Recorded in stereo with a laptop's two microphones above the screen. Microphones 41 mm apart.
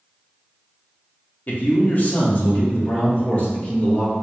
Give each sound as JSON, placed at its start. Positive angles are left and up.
{"t": 1.5, "sound": "a man speaking", "side_deg": 40, "distance_m": 0.6}